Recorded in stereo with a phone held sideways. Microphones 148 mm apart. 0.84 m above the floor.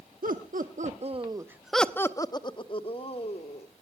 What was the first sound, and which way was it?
Laughter, 75° right (ahead or behind).